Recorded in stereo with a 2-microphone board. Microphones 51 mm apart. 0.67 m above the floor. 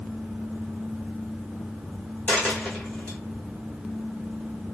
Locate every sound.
2.3 s a dropped coin: 35° left (ahead or behind), 1.3 m